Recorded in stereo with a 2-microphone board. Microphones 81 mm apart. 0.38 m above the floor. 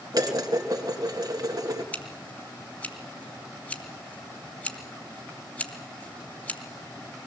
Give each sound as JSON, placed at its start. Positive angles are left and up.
{"t": 0.1, "sound": "dishes clattering", "side_deg": -50, "distance_m": 3.5}
{"t": 1.9, "sound": "scissors", "side_deg": 20, "distance_m": 3.5}